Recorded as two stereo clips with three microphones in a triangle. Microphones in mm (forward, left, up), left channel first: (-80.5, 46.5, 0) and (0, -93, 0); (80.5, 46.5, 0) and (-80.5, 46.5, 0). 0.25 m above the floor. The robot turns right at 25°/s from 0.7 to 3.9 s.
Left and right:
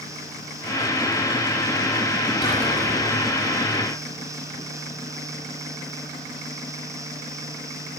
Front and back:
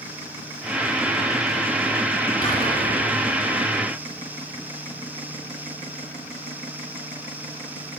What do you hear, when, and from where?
2.4 s whispering: 60° left, 3 m; by 2.9 s 75° left, 3 m